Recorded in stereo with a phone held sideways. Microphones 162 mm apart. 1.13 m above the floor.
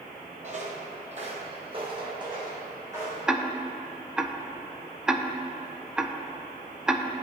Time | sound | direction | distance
0.4 | footsteps | 45° right (ahead or behind) | 1.6 m
3.3 | ticking | 5° right (ahead or behind) | 0.5 m